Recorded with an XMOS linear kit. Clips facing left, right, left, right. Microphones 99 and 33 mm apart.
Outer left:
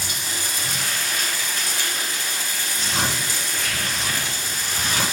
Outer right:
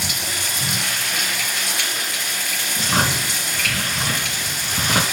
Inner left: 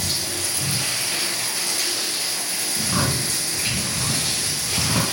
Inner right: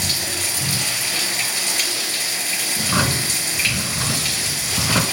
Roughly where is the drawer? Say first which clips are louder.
Outer right 5 dB, inner right 3 dB; right.